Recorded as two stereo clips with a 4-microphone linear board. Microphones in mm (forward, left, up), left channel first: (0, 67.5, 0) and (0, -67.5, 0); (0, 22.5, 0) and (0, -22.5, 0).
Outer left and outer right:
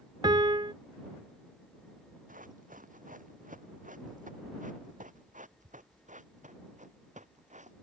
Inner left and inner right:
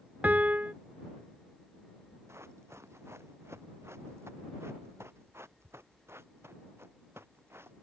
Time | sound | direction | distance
0.2 | a piano | 35° right (ahead or behind) | ?
2.3 | running footsteps | 85° right | ?